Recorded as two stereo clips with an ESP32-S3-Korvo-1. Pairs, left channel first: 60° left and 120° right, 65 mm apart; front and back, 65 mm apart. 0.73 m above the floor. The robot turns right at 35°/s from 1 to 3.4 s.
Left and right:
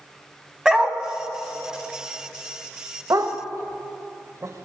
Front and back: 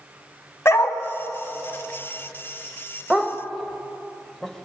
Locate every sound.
0.7 s a dog barking: 40° right, 1.0 m
3.1 s a dog barking: 95° right, 1.1 m; by 4.6 s 85° right, 1.1 m